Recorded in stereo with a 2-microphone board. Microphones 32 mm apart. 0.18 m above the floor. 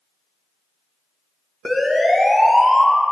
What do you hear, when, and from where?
1.6 s a siren: centre (ahead or behind), 2.5 m